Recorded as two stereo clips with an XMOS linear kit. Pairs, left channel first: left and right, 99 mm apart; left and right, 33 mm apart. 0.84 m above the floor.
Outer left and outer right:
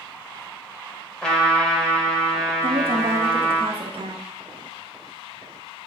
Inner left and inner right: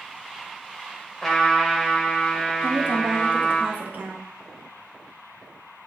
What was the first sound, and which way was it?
A trumpet, 5° left (ahead or behind).